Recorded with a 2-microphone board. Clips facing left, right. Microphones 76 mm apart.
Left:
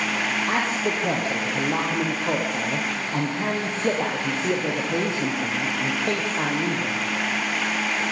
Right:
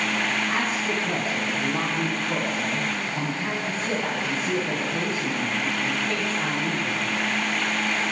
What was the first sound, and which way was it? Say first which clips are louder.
A man speaking: left 2 dB; 65° left (ahead or behind).